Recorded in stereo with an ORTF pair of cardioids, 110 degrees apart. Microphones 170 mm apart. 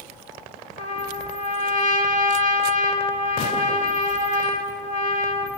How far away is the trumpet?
About 5 m.